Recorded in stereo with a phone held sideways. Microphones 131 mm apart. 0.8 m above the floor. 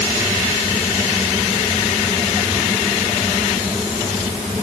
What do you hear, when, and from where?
0.0 s a fan: 25° right (ahead or behind)